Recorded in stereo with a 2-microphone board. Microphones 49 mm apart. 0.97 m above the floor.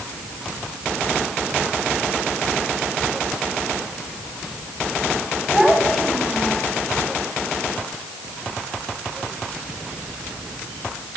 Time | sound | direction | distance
5.5 | a child speaking | 10° right (ahead or behind) | 5.5 m